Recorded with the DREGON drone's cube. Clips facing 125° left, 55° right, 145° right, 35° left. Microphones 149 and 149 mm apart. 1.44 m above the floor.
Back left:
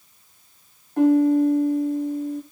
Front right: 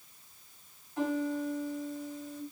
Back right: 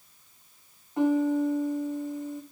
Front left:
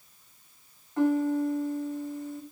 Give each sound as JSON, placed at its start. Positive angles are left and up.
{"t": 1.0, "sound": "a piano", "azimuth_deg": 145, "distance_m": 0.7}